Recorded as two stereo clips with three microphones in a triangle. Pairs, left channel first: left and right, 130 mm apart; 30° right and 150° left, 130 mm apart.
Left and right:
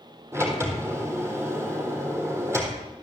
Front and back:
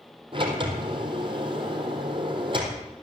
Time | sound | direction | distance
0.3 | a sliding door | 160° right | 3.5 m